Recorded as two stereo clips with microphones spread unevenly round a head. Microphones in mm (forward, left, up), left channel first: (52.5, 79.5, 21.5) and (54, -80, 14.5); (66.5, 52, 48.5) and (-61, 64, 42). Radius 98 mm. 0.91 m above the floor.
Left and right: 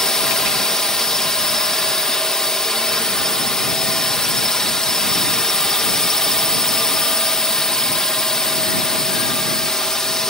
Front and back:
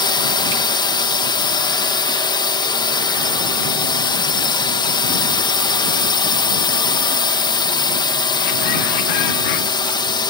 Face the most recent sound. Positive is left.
turn(degrees=5)